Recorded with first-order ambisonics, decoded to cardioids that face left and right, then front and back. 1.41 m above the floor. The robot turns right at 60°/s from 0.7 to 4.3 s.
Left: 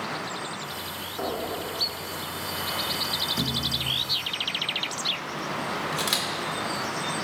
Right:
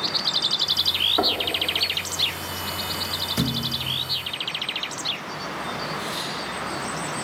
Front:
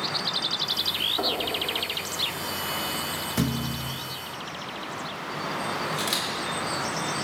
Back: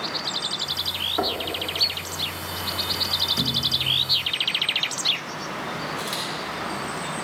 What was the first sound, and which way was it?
Knocking, 115° right.